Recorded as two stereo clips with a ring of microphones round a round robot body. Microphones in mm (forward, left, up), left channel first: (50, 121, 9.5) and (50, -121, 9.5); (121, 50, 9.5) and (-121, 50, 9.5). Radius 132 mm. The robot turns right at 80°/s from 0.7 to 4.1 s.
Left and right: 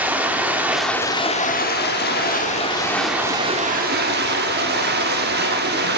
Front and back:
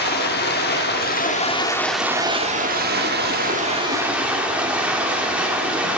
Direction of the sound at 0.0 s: 10° right.